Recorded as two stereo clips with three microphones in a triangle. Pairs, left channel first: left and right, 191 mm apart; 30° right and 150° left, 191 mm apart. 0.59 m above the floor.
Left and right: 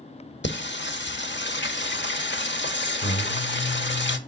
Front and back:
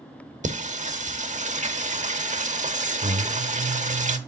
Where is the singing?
105° left, 0.9 m.